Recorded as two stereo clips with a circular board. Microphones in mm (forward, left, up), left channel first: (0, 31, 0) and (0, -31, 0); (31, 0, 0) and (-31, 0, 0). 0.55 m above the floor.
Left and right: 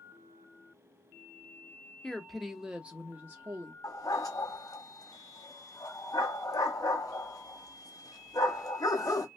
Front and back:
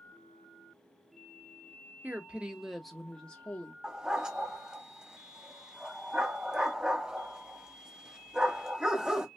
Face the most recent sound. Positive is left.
turn(degrees=100)